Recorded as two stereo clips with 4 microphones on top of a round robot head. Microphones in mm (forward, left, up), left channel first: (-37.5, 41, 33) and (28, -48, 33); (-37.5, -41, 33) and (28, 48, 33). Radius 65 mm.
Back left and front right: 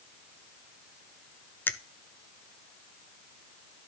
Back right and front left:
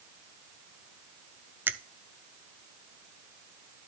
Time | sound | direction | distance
1.7 | a finger snap | 90° left | 0.5 m